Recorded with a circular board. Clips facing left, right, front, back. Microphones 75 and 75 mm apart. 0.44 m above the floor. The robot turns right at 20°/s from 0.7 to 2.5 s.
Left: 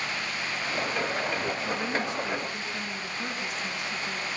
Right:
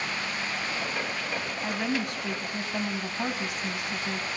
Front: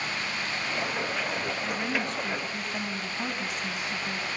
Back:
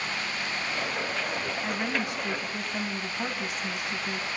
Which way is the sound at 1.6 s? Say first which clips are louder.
Even, back 1 dB; 105° right.